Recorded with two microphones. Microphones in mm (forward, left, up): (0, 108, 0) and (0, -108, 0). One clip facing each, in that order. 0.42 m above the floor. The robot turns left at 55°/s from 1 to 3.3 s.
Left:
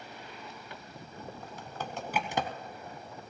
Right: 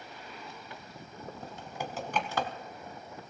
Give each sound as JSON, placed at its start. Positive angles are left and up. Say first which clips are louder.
{"t": 1.4, "sound": "typing on a keyboard", "louder": "right 3 dB", "side_deg": -35, "distance_m": 1.2}